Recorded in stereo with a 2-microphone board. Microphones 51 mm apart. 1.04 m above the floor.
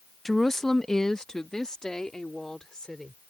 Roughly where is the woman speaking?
Centre.